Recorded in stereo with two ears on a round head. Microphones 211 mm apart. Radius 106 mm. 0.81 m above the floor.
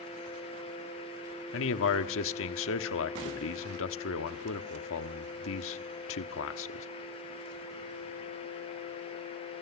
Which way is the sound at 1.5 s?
60° left (ahead or behind).